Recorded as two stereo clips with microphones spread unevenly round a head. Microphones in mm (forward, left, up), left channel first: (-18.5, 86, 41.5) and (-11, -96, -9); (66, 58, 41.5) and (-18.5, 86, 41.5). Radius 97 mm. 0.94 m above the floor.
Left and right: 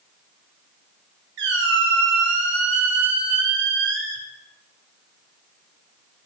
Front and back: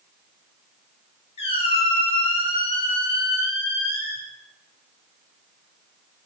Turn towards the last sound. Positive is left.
turn(degrees=-50)